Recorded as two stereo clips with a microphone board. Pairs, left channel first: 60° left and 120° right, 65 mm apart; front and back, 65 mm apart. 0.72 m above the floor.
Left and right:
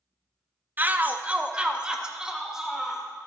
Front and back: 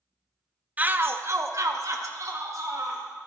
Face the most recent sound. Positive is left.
turn(degrees=160)